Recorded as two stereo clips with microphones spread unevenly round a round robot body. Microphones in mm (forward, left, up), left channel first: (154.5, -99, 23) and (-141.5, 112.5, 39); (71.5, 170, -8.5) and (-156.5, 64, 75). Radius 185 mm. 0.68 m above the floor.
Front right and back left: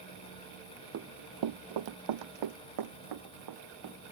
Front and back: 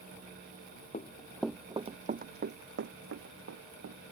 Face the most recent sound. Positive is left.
turn(degrees=-175)